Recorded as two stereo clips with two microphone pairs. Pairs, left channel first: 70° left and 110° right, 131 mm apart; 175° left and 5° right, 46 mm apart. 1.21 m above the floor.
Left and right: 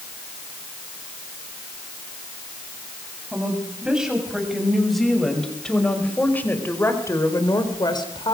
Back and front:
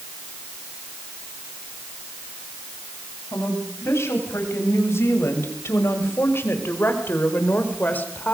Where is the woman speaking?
170° left, 7 m; by 8.3 s 120° left, 4 m.